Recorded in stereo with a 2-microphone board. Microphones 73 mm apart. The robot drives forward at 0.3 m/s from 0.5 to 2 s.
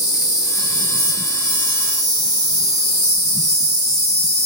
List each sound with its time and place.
0.0 s an insect: 35° left (ahead or behind), 1.8 m; by 4.5 s 30° left (ahead or behind), 2 m